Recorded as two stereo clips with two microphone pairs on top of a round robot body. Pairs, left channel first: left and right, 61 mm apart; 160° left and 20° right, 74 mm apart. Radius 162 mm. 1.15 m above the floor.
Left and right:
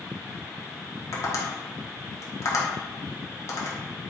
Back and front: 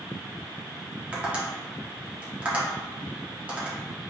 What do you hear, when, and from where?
1.1 s tapping: 50° left, 0.9 m